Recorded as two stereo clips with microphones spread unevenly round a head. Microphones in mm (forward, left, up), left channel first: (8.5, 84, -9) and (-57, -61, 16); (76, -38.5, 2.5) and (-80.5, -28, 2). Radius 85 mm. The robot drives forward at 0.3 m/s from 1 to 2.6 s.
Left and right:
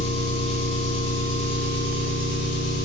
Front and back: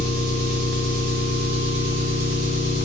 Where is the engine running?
110° left, 1.1 m; by 2.9 s 130° left, 1.4 m.